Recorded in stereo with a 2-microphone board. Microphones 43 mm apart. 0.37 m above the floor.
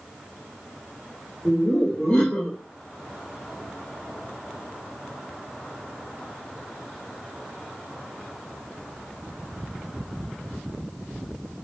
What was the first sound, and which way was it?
Laughter, 25° left (ahead or behind).